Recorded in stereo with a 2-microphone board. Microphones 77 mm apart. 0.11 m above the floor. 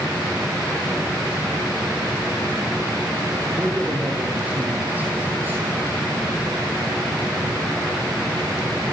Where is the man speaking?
15° right (ahead or behind), 5 m; by 5.6 s 25° right (ahead or behind), 3.5 m.